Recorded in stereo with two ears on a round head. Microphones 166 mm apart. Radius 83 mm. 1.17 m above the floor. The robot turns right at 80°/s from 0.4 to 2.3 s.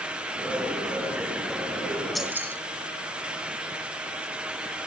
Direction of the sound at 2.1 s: Centre (ahead or behind).